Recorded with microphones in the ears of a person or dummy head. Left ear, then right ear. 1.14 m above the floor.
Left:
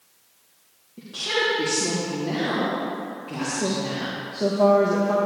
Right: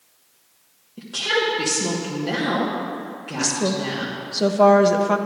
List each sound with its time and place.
1.0 s a woman speaking: 45° right (ahead or behind), 1.2 m
3.4 s a woman speaking: 55° right (ahead or behind), 0.9 m